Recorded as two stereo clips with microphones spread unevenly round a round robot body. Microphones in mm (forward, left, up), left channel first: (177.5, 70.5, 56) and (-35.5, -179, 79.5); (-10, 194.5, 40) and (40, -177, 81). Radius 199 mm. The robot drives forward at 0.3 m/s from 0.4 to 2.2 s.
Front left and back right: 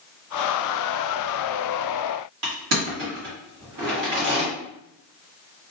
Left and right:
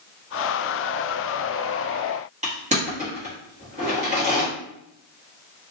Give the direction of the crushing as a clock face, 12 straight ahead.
5 o'clock.